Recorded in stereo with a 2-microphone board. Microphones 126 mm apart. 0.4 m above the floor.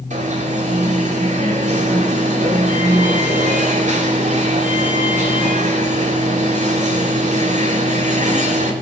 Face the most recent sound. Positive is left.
turn(degrees=-75)  # may be behind; listen again after turning